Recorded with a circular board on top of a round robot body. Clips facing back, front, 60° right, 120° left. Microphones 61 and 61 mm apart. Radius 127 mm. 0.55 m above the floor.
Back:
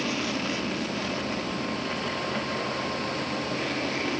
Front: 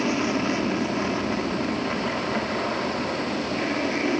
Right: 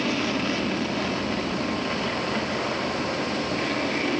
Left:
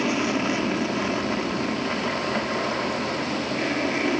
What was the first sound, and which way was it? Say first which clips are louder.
An aircraft: front 5 dB, left 2 dB; 55° left.